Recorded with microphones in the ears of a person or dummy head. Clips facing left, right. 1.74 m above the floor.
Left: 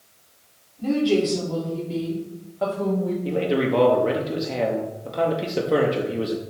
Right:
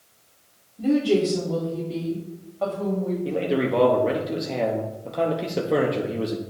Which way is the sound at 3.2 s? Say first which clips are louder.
Left 1 dB; centre (ahead or behind).